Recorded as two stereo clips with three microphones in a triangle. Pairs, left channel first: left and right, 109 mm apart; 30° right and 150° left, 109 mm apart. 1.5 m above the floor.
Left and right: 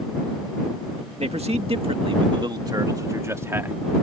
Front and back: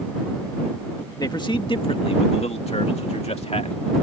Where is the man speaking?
80° right; by 3.8 s 20° right.